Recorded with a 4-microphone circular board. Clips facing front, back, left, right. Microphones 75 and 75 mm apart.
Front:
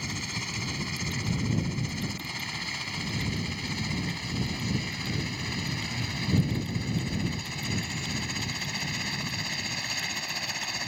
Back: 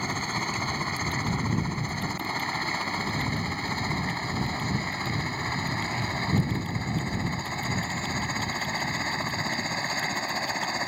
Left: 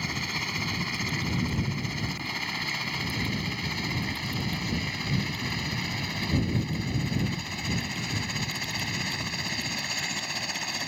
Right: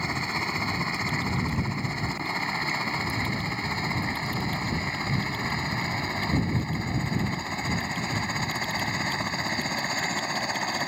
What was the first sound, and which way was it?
A helicopter, 145° right.